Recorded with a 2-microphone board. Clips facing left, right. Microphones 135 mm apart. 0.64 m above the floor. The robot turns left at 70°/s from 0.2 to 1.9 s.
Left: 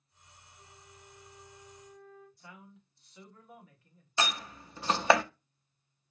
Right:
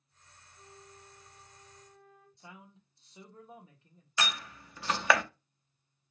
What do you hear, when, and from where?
0.6 s a flute: 25° right (ahead or behind), 0.9 m; by 2.3 s centre (ahead or behind), 0.9 m
2.4 s a man speaking: 25° right (ahead or behind), 1.0 m
4.2 s a door slam: 30° left (ahead or behind), 0.5 m